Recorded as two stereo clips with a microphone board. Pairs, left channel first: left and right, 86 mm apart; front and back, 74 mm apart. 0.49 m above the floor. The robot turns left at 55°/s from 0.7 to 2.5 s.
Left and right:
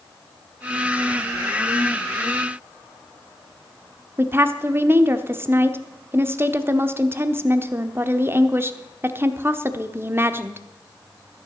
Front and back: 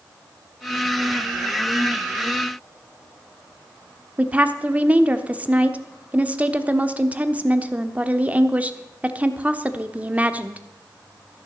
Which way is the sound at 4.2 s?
125° right.